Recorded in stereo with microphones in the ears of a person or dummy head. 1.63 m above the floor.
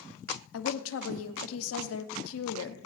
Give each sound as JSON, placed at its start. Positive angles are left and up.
{"t": 0.5, "sound": "a woman speaking", "side_deg": 75, "distance_m": 0.9}